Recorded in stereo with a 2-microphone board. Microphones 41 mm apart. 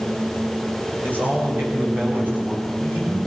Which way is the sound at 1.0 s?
60° right (ahead or behind).